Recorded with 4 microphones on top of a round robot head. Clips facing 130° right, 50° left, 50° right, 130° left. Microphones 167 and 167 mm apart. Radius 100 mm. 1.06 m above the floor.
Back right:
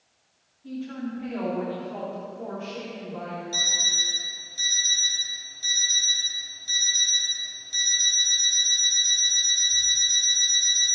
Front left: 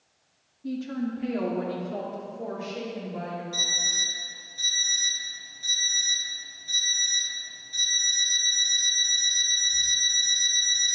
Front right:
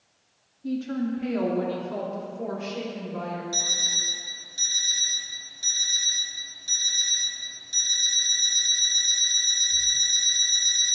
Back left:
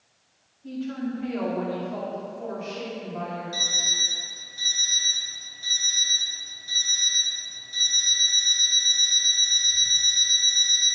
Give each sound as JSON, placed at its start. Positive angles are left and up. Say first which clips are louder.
{"t": 0.6, "sound": "a woman speaking", "louder": "front left 3 dB, front right 3 dB", "azimuth_deg": 5, "distance_m": 1.3}
{"t": 3.5, "sound": "an alarm clock", "louder": "back right 1 dB, even", "azimuth_deg": -80, "distance_m": 3.5}